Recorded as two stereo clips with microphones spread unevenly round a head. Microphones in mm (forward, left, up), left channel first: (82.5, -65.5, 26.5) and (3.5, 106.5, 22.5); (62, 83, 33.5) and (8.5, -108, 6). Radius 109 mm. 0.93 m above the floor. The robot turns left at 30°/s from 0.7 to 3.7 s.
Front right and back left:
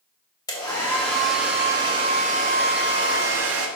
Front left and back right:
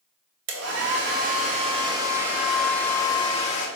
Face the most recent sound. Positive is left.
turn(degrees=130)